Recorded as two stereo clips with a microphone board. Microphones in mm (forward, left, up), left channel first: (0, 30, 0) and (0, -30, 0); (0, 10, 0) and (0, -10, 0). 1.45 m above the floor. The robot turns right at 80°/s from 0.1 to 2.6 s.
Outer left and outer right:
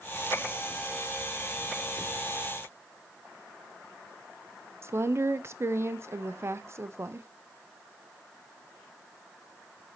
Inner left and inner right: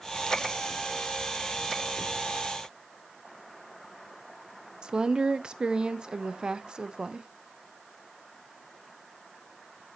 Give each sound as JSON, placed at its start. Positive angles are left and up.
{"t": 4.8, "sound": "a woman speaking", "side_deg": -45, "distance_m": 0.6}